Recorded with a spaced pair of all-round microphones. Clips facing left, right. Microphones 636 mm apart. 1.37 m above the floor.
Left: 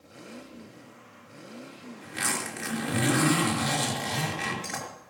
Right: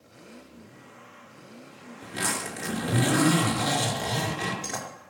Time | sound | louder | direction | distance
2.0 | a zipper | right 3 dB | 65° right (ahead or behind) | 4.5 m